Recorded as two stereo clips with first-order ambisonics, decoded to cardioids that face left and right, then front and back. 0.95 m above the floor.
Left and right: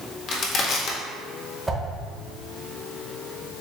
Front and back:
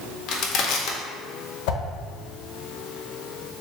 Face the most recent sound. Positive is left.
turn(degrees=-10)